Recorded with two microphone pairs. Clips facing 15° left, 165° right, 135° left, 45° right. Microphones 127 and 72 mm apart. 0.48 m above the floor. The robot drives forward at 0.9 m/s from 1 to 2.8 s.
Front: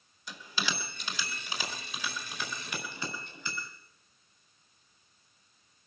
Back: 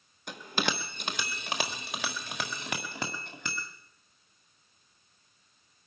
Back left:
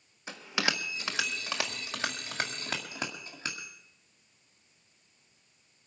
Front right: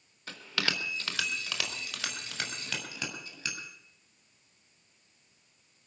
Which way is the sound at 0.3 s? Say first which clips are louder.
Back 4 dB, back left 2 dB; 160° right.